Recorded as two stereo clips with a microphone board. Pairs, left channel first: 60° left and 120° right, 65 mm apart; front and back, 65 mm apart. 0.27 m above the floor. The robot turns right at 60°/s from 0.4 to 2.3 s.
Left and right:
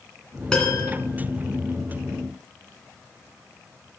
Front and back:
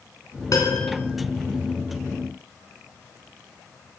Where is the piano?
20° right, 3 m; by 0.9 s 5° left, 3 m.